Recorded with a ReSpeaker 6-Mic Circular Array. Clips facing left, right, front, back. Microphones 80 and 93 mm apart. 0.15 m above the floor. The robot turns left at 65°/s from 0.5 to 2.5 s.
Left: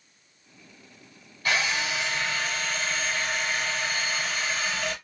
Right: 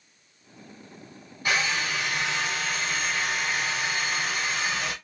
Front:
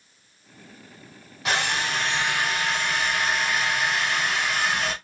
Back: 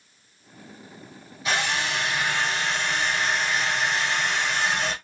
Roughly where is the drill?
Ahead.